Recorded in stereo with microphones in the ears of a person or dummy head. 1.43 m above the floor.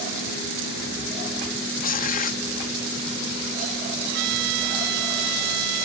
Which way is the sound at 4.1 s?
65° right (ahead or behind).